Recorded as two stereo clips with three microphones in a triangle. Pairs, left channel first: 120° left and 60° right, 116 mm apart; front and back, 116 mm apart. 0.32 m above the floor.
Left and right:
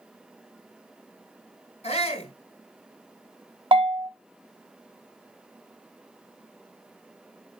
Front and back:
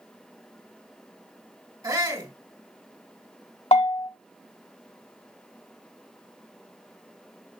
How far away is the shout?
About 3 m.